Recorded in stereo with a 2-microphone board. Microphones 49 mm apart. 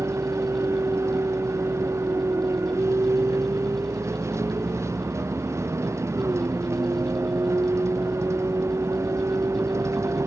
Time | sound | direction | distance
0.0 | a vehicle | 80° right | ?